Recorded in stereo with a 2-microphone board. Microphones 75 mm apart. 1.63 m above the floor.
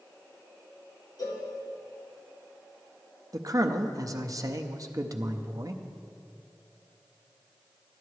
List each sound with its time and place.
1.2 s a cowbell: 65° left (ahead or behind), 2 m
3.3 s a man speaking: 50° right (ahead or behind), 0.6 m